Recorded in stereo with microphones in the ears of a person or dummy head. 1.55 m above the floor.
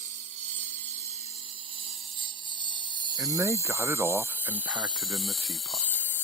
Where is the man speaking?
15° right (ahead or behind).